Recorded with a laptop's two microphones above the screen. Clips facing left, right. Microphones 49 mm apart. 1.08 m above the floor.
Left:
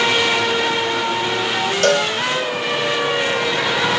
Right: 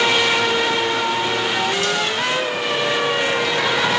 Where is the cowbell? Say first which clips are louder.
Left 5 dB; 60° left (ahead or behind).